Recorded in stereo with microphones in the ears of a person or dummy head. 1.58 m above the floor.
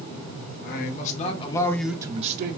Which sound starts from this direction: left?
A man speaking, at 0.6 s.